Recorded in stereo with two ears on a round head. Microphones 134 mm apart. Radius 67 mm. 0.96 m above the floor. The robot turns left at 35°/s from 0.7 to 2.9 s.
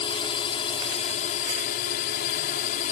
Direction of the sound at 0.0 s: 140° left.